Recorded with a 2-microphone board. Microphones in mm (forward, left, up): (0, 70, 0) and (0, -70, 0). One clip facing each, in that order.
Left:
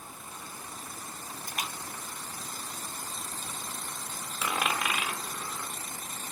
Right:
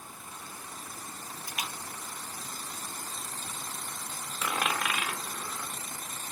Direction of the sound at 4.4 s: 10° left (ahead or behind).